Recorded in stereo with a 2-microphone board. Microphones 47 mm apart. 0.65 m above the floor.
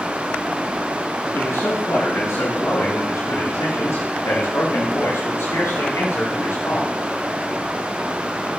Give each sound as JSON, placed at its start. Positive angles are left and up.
{"t": 1.3, "sound": "a man speaking", "side_deg": 85, "distance_m": 7.0}